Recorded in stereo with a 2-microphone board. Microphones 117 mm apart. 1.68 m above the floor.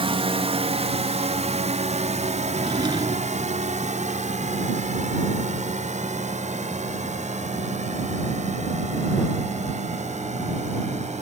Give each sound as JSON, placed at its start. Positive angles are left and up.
{"t": 0.0, "sound": "a drone", "side_deg": -50}
{"t": 2.5, "sound": "a drawer", "side_deg": -40}